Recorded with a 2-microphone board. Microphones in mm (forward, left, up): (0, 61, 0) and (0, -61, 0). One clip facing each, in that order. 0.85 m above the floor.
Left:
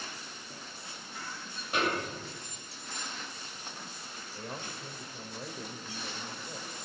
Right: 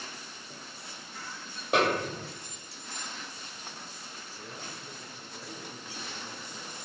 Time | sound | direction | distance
1.7 | a snare drum | 70° right (ahead or behind) | 1.2 m
4.3 | a man speaking | 60° left (ahead or behind) | 4 m